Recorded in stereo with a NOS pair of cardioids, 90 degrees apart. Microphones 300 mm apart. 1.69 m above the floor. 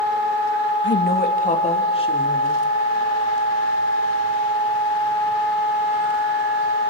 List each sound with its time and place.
0.8 s a woman speaking: 40° left, 2 m; by 2.6 s 15° left, 4.5 m